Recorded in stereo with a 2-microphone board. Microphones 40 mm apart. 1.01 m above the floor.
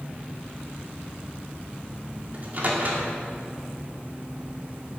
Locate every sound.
2.3 s a microwave: 45° right (ahead or behind), 2.5 m